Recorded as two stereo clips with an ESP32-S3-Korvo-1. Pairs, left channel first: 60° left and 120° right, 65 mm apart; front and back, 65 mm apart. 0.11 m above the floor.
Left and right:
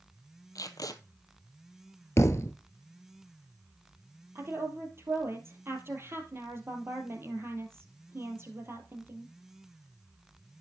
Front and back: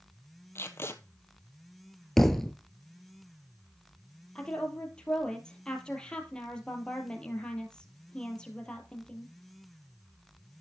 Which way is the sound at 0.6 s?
45° left.